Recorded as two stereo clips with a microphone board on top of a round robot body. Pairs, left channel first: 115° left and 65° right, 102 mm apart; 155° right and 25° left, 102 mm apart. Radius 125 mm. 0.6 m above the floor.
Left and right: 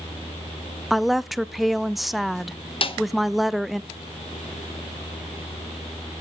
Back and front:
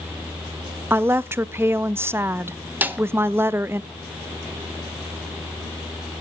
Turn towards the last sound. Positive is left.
turn(degrees=95)